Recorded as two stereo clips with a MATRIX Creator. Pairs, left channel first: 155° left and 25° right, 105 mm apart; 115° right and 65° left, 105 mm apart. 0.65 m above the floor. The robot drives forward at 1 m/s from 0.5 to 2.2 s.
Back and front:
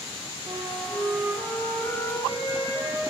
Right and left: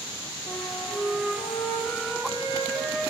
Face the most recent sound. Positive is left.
turn(degrees=-145)